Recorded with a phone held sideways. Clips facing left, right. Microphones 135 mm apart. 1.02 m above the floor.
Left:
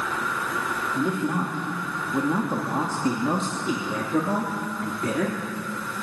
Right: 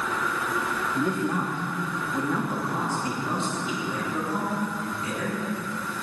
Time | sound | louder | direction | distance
0.9 | a man speaking | left 1 dB | 5° left (ahead or behind) | 2.5 m